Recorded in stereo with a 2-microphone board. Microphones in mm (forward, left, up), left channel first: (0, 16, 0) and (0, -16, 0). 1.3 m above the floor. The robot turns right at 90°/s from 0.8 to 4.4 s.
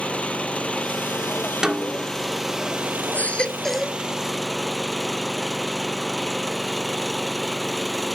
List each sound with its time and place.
0.0 s an engine running: 45° left; by 8.2 s 5° left
1.6 s a snare drum: 155° right; by 2.1 s 115° right
3.1 s a baby crying: 125° left; by 4.0 s 160° right